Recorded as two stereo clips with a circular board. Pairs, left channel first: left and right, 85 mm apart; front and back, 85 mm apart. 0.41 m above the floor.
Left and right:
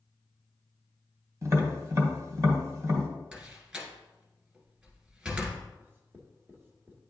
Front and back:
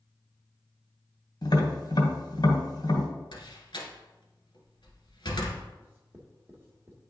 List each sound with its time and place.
1.4 s tapping: 40° right, 1.5 m
3.3 s a door slam: 15° right, 1.6 m
5.8 s writing: 135° right, 1.3 m